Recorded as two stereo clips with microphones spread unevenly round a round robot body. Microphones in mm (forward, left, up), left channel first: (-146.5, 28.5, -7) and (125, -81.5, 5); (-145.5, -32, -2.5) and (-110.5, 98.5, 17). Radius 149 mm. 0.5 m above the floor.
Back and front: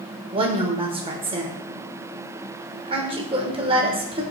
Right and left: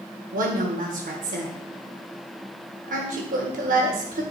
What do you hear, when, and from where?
0.3 s a woman speaking: 50° left, 1.2 m